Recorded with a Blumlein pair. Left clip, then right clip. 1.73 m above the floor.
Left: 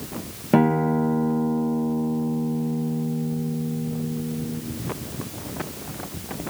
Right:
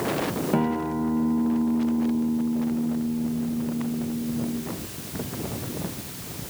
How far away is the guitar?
About 2 m.